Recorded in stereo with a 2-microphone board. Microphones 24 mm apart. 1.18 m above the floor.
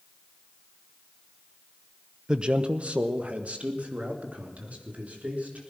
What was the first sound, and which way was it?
A man speaking, 30° right (ahead or behind).